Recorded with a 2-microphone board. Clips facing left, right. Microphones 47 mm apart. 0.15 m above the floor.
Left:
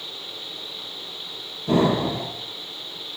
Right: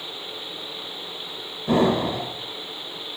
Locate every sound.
1.7 s an explosion: 15° right (ahead or behind), 1.7 m